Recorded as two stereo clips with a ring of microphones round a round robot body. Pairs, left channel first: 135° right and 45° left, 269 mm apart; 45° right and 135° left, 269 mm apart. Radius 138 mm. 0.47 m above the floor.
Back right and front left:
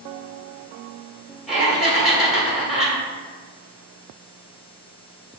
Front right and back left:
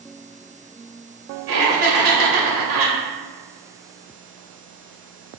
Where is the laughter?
135° left, 1.6 m.